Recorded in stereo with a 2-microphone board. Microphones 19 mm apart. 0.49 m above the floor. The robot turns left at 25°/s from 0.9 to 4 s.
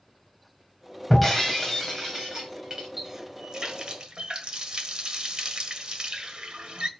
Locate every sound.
1.1 s breaking glass: straight ahead, 3 m; by 2.9 s 45° right, 3 m
3.0 s a running tap: 25° right (ahead or behind), 1.2 m; by 6.9 s 50° right (ahead or behind), 1.2 m